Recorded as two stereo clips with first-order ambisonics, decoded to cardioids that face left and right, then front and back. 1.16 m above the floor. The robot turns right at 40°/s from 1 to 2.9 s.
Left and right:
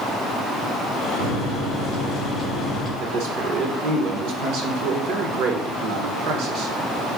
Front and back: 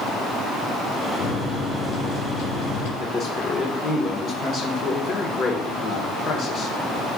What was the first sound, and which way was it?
A microwave, 70° right.